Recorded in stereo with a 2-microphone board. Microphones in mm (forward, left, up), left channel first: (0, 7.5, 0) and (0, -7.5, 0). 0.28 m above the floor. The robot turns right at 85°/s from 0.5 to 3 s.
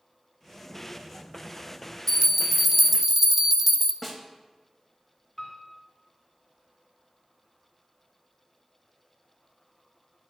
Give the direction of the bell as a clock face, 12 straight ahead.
8 o'clock.